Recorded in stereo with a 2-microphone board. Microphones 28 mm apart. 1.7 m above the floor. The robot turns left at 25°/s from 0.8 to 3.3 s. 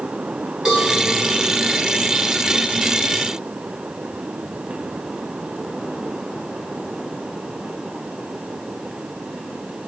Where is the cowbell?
20° right (ahead or behind), 5.5 m.